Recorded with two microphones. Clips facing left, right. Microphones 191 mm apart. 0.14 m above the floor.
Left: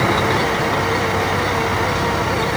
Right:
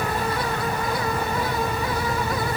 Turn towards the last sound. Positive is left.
turn(degrees=85)